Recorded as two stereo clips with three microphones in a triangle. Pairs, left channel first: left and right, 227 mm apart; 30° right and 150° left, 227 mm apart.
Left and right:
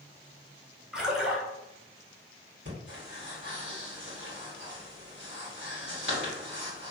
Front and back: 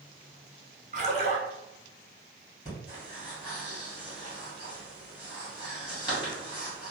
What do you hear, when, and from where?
0.9 s a splash: straight behind, 0.9 m
2.6 s breathing: 95° right, 2.0 m